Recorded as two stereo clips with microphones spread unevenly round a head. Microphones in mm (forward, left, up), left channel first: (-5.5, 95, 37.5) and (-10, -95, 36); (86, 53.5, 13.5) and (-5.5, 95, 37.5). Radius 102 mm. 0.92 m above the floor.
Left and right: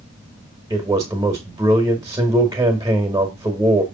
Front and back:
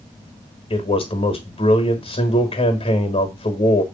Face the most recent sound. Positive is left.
turn(degrees=-20)